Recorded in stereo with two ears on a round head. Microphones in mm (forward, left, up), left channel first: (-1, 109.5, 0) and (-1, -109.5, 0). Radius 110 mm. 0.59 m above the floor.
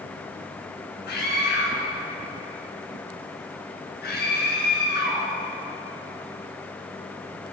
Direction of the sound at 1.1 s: 40° left (ahead or behind).